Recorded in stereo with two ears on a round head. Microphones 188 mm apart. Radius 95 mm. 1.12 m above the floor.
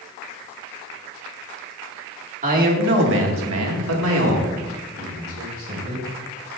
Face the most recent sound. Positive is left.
turn(degrees=-45)  # may be behind; listen again after turning